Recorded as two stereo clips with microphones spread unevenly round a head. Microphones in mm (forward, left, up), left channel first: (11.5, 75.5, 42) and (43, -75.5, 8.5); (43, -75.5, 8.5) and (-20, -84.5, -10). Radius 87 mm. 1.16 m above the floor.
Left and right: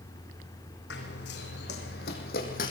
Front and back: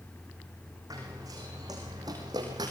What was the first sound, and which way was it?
Running footsteps, 120° left.